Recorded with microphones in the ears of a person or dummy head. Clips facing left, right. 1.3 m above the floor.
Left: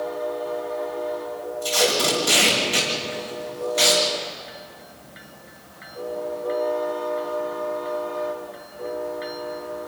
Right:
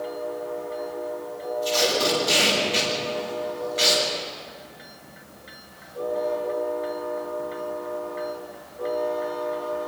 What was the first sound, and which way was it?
Tape being pulled, 55° left (ahead or behind).